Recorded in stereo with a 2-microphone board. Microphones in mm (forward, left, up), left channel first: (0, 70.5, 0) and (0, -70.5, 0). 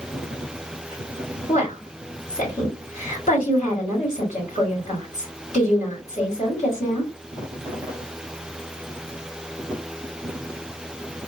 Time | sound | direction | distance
1.5 | a woman speaking | 60° left (ahead or behind) | 2.5 m